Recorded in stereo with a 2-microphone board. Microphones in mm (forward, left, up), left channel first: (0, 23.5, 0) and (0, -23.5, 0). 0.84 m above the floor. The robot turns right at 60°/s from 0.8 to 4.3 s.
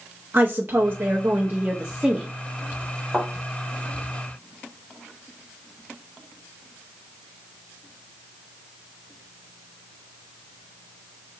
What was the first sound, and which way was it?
A woman speaking, 95° right.